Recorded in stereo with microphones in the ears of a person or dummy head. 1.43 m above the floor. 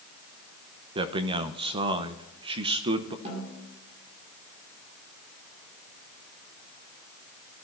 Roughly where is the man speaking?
Right.